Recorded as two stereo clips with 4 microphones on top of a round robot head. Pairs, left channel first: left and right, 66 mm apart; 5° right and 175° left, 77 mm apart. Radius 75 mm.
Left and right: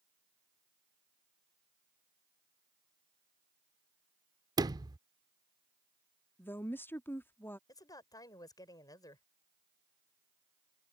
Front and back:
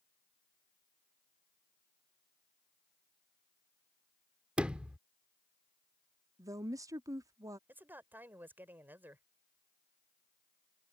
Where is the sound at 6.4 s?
140° left.